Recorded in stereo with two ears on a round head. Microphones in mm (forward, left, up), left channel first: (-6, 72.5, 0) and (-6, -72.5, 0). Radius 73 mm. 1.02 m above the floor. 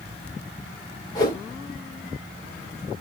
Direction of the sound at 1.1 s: 25° left (ahead or behind).